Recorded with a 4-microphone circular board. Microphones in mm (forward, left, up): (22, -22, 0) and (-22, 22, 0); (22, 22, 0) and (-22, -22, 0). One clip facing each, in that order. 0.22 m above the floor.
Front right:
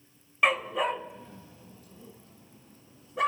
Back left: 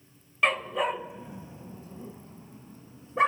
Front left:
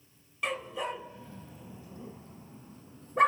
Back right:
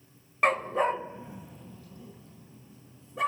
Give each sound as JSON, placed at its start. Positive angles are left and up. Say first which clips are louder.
{"t": 0.4, "sound": "a dog barking", "louder": "even, back right 9 dB", "azimuth_deg": -125, "distance_m": 0.8}